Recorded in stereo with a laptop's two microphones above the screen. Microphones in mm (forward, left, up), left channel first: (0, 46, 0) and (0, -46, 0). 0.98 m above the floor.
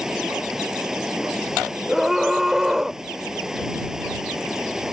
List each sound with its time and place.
0.0 s running water: 5° right (ahead or behind)
1.9 s a scream: 5° right (ahead or behind)